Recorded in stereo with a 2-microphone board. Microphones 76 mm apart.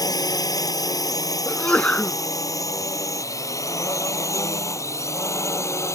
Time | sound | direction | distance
0.0 | a drone | 55° left (ahead or behind) | ?
1.4 | a sneeze | 15° left (ahead or behind) | ?